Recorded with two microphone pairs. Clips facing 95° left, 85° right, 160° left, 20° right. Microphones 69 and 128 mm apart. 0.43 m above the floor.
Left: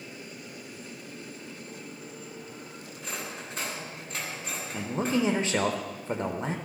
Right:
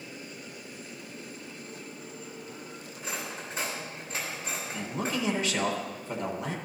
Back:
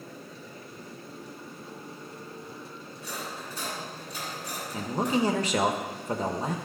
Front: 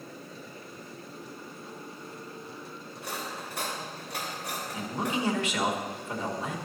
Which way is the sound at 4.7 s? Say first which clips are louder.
Left 5 dB, back 5 dB; 130° left.